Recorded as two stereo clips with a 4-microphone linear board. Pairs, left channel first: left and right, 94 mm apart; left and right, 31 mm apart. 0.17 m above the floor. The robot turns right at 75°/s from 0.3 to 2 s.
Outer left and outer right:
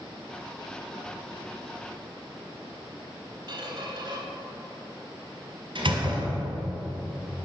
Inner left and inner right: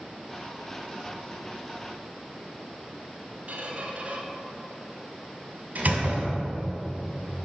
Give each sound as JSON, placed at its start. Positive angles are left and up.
{"t": 3.5, "sound": "a squeak", "side_deg": -55, "distance_m": 0.8}
{"t": 5.8, "sound": "a door slam", "side_deg": -60, "distance_m": 1.9}